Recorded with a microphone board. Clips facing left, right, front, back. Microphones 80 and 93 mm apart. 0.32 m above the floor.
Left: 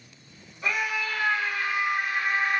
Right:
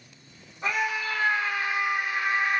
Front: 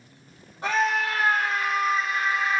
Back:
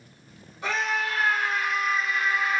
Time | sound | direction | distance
0.6 | a scream | 30° right | 2.5 m